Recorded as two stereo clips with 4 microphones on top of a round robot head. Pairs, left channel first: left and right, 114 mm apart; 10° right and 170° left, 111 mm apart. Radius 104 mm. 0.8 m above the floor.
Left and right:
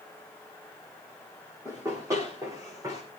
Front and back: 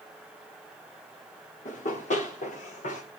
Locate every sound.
1.6 s running footsteps: 20° right, 7.5 m; by 3.0 s 25° right, 7 m